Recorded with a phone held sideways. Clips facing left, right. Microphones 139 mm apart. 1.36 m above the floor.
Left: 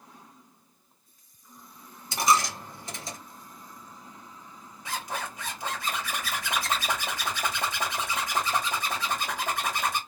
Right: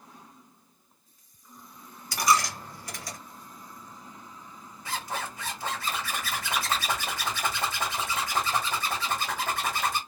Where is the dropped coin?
25° left (ahead or behind), 0.7 m.